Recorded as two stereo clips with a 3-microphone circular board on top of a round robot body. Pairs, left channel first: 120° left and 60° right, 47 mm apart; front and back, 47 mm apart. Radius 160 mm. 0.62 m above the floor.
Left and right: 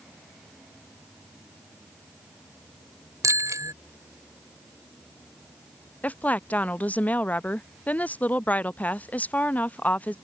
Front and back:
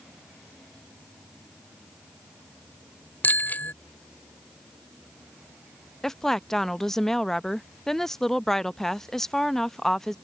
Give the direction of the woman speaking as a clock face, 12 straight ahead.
9 o'clock.